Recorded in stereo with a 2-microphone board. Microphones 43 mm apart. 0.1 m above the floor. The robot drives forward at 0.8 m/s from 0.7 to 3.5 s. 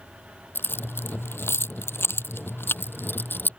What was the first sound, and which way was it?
Keys jangling, 60° left (ahead or behind).